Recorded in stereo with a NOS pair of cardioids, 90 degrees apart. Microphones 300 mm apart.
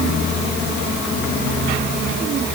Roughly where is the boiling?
I don't hear boiling.